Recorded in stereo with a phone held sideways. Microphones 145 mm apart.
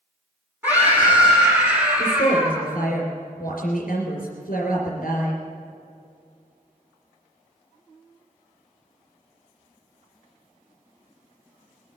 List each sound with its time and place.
0.6 s a scream: 15° right (ahead or behind), 7.5 m; by 2.7 s 10° right (ahead or behind), 9 m
2.0 s a woman speaking: 75° left (ahead or behind), 3.5 m